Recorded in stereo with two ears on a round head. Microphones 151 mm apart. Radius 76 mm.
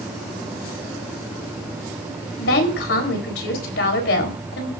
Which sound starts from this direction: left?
A woman speaking, at 2.4 s.